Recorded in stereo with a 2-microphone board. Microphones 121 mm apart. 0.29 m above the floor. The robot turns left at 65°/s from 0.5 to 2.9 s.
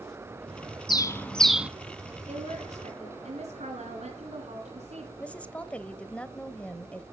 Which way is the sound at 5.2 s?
10° left (ahead or behind).